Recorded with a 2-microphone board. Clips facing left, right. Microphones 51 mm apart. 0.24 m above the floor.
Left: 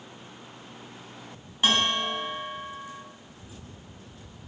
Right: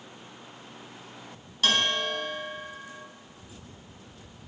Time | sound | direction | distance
1.6 | a bell | 25° left (ahead or behind) | 1.8 m